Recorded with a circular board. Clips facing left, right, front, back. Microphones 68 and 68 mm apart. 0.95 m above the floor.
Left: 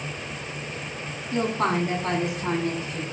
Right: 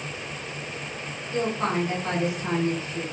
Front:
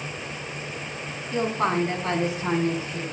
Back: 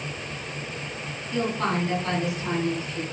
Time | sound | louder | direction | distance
1.3 | a woman speaking | left 2 dB, front 2 dB | 65° left | 8.5 m